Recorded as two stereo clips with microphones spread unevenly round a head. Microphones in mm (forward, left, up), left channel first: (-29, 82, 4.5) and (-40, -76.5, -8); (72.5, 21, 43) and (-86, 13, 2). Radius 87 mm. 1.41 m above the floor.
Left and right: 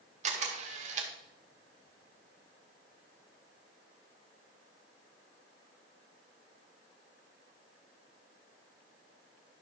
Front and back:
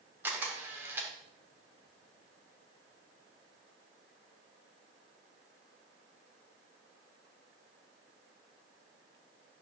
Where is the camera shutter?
85° right, 1.2 m.